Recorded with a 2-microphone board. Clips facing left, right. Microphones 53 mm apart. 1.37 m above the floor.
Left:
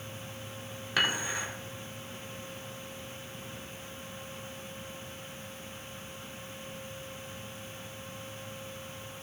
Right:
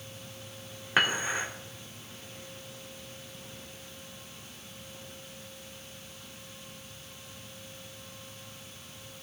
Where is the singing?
No singing in this recording.